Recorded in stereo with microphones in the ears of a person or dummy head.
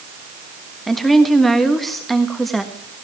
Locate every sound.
0.9 s a woman speaking: centre (ahead or behind), 1.3 m